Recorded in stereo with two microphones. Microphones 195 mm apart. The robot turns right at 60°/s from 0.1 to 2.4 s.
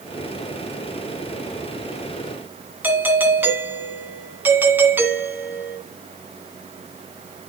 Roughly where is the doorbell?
Centre.